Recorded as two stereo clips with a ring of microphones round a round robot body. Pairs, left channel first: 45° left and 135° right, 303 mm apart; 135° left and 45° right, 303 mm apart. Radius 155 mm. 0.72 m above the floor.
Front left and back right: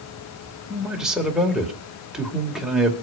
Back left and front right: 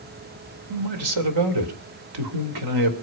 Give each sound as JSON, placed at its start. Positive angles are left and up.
{"t": 0.7, "sound": "a man speaking", "azimuth_deg": -45, "distance_m": 2.5}